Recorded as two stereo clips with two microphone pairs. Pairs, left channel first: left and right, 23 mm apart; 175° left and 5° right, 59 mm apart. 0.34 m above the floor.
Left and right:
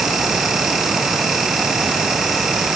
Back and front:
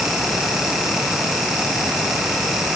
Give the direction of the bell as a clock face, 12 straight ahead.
No bell in this recording.